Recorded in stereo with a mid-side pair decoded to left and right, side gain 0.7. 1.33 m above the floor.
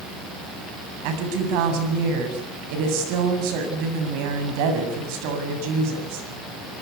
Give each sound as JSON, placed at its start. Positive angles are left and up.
{"t": 1.0, "sound": "a woman speaking", "azimuth_deg": -70, "distance_m": 8.0}